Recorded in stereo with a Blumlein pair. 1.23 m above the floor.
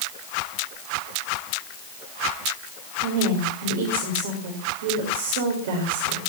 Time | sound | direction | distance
3.0 | a woman speaking | 55° right | 5.5 m